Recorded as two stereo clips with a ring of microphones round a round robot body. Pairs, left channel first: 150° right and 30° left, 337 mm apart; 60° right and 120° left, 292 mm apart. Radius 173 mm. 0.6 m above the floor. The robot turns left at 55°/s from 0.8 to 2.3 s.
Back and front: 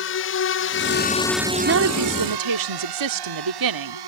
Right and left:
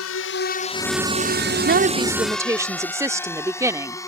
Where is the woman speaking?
75° left; by 4.0 s 40° left.